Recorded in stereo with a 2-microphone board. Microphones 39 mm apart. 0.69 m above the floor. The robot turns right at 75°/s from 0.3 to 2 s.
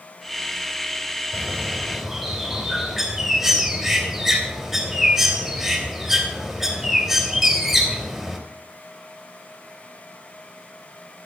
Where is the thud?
I don't hear a thud.